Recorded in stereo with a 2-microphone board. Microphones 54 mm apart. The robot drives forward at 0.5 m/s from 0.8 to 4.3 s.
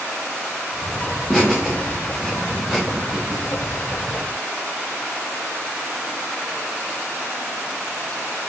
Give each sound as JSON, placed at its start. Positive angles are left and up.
{"t": 1.3, "sound": "laughter", "side_deg": 0, "distance_m": 1.7}